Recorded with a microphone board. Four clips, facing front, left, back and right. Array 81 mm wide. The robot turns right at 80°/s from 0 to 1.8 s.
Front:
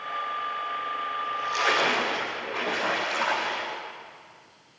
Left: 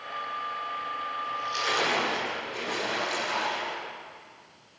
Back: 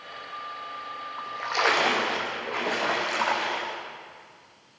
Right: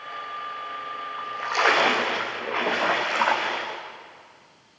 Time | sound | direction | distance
1.2 | a splash | 150° right | 5.5 m